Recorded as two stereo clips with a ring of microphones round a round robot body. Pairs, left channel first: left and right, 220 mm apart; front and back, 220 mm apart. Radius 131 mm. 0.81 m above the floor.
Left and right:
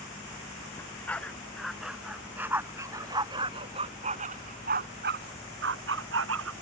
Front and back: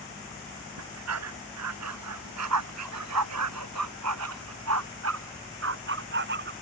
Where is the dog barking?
170° left; by 6.5 s 130° right.